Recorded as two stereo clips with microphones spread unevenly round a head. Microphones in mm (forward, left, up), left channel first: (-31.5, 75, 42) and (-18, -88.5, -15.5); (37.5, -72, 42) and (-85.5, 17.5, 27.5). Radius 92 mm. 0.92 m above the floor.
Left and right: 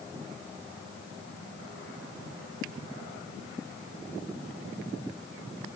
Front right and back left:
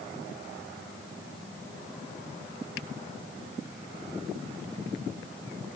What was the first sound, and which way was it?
Only background noise.